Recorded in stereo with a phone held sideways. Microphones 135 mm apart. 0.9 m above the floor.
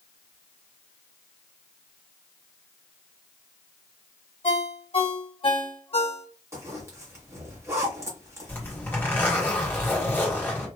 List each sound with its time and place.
4.4 s a ringtone: 50° left (ahead or behind), 1.9 m
6.5 s a zipper: 20° right (ahead or behind), 1.2 m
8.5 s a zipper: 15° left (ahead or behind), 1.4 m